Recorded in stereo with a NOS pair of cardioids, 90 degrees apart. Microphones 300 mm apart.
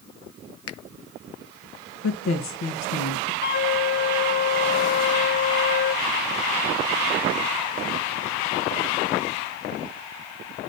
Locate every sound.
0.7 s a finger snap: 50° left, 0.8 m
2.0 s a woman speaking: 65° left, 2 m
3.4 s a flute: 70° left, 1.4 m